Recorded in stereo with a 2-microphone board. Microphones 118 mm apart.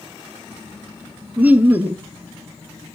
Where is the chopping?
No chopping in this recording.